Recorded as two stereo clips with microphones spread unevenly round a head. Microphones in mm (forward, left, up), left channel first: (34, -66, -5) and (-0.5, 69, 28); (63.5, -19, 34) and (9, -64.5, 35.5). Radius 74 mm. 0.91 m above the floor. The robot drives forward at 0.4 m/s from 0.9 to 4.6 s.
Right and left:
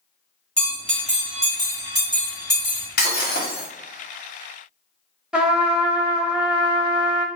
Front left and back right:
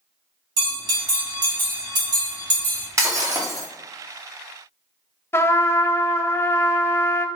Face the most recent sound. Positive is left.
turn(degrees=10)